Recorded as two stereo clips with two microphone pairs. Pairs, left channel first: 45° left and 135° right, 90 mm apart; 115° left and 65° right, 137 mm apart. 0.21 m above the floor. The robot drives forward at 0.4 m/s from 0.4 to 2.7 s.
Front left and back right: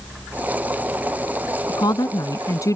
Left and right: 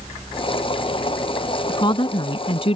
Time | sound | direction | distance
1.7 | a woman speaking | 70° left | ?